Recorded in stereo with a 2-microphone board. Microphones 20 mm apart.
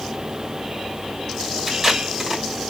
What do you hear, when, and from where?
1.7 s tape being pulled: 15° right (ahead or behind), 2 m